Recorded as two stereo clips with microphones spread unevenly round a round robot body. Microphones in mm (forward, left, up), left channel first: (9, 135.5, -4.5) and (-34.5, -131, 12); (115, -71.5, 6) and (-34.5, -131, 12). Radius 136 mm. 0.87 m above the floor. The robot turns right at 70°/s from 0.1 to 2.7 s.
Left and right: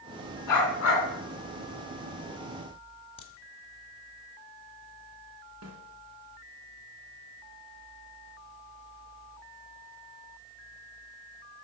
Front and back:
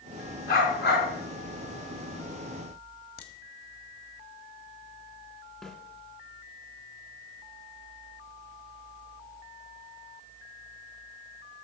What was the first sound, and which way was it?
A dog barking, 95° left.